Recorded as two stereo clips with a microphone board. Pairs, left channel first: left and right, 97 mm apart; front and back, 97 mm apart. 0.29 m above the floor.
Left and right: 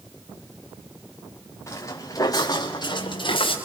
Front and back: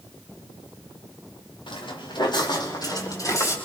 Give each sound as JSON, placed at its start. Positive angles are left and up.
{"t": 1.7, "sound": "footsteps", "azimuth_deg": 30, "distance_m": 4.0}